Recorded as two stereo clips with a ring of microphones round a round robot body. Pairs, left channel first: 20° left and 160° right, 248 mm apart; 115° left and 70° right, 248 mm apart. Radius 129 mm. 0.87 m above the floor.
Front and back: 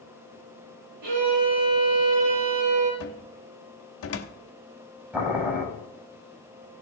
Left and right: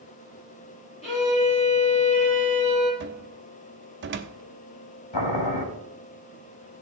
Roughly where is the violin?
Behind.